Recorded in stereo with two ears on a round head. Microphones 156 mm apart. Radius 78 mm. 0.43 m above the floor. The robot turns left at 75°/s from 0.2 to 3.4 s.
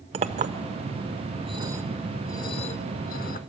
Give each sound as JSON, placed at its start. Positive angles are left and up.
{"t": 0.1, "sound": "a clink", "side_deg": -35, "distance_m": 0.6}